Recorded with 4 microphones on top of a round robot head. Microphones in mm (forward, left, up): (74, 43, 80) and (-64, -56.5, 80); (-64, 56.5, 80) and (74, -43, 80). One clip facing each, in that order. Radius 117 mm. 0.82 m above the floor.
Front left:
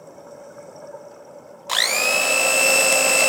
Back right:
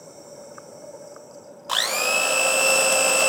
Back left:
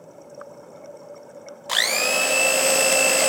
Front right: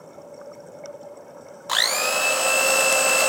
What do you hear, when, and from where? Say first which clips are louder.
1.7 s a blender: front left 2 dB, back left 1 dB; 100° left, 0.9 m